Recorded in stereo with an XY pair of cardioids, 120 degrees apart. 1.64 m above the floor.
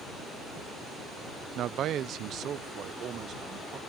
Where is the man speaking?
65° right; by 3.8 s 55° right.